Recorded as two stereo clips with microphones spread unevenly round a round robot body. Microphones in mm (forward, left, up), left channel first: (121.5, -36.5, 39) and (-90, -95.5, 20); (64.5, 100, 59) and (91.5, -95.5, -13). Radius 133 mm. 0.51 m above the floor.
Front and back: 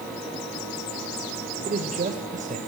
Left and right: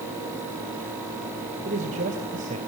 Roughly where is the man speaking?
Behind right.